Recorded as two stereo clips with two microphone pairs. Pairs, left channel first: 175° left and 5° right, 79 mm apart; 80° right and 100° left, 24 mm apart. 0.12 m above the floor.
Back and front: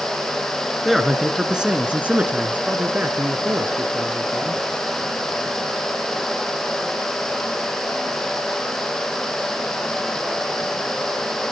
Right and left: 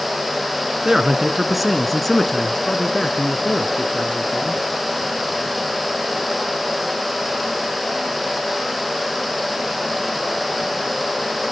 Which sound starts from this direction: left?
A man speaking, at 0.8 s.